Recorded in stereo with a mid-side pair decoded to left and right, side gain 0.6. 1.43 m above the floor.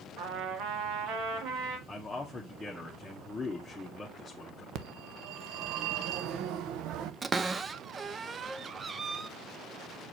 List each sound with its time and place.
0.2 s a trumpet: 65° right, 1.8 m
1.9 s a man speaking: 10° left, 1.6 m
4.8 s a phone ringing: 65° right, 0.8 m
7.2 s a cupboard door: 25° right, 0.6 m